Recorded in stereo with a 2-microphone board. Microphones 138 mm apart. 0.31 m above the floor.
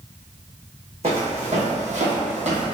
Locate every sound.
1.0 s footsteps: 50° right (ahead or behind), 1.0 m